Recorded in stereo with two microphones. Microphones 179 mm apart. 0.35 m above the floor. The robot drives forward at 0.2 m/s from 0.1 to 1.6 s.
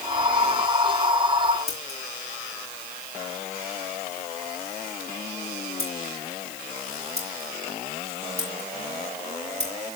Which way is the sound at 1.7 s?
40° right (ahead or behind).